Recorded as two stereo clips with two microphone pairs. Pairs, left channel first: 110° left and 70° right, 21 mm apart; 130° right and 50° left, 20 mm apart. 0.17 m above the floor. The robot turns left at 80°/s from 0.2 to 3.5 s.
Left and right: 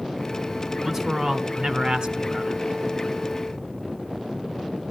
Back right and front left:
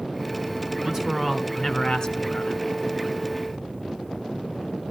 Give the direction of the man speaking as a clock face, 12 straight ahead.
12 o'clock.